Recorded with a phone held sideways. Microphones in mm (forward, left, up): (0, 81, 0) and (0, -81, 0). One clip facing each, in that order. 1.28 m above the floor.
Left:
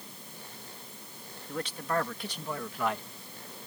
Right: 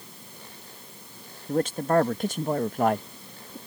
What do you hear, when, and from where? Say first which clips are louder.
1.5 s a man speaking: right 10 dB; 50° right (ahead or behind)